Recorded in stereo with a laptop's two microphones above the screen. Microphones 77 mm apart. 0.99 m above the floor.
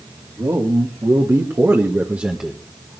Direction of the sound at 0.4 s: 55° right (ahead or behind).